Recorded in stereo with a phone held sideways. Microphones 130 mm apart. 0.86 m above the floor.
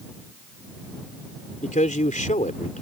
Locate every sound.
1.6 s a man speaking: 75° left (ahead or behind)